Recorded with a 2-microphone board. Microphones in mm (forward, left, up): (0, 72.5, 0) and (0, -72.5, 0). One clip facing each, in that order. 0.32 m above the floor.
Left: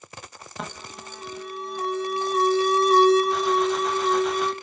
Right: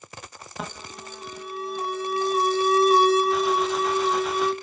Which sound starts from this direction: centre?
An alarm, at 0.6 s.